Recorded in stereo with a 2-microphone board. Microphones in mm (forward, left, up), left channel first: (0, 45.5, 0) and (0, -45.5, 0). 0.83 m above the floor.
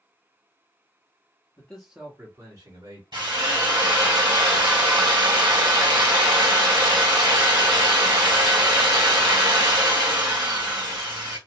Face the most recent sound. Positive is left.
turn(degrees=-60)  # may be behind; listen again after turning